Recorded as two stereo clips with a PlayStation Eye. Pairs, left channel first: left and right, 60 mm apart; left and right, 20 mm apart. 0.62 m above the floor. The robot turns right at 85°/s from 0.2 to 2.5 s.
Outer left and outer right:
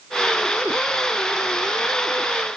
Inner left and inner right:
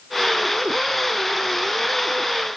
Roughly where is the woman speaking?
No woman speaking in this recording.